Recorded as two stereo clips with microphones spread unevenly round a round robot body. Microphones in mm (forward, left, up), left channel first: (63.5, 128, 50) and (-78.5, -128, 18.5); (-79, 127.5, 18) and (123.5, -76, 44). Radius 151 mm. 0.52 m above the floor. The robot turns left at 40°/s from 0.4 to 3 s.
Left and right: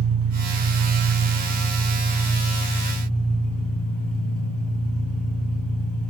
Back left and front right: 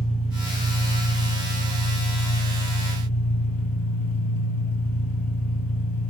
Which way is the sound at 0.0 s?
150° right.